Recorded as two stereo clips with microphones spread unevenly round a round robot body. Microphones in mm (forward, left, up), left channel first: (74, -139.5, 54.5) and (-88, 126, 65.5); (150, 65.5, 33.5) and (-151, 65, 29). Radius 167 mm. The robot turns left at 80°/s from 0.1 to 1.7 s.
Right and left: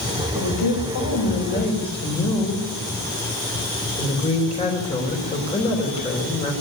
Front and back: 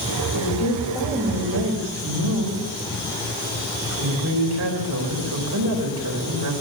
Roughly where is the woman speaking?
Ahead right.